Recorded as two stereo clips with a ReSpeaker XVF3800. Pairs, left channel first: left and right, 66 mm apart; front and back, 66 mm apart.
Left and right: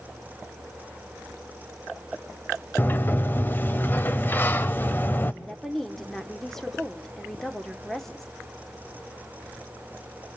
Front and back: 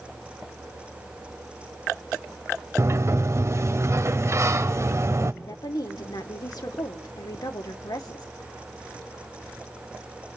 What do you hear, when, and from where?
2.8 s a sliding door: 145° left, 0.7 m
5.4 s a woman speaking: 5° left, 1.6 m